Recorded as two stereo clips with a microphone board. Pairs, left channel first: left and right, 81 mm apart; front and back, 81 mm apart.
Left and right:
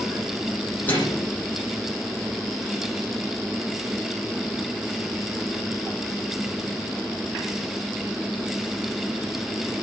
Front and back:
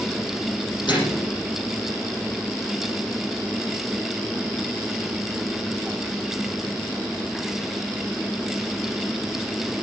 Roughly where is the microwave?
Ahead left.